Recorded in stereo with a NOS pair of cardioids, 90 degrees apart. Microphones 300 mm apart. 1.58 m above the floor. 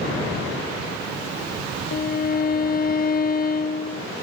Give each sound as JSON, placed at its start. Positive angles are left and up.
{"t": 1.9, "sound": "a violin", "azimuth_deg": 35, "distance_m": 0.5}